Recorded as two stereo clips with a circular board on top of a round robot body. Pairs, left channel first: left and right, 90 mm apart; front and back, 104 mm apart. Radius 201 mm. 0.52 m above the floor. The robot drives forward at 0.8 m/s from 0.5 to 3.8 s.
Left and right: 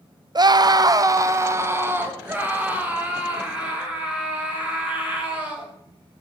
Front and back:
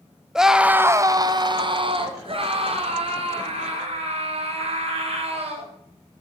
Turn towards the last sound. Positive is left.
turn(degrees=-165)